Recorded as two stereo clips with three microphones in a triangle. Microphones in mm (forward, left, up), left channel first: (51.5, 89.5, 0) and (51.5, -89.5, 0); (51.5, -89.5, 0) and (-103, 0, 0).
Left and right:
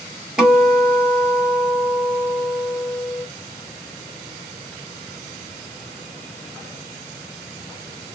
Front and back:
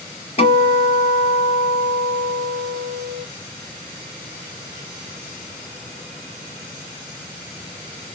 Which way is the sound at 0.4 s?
5° right.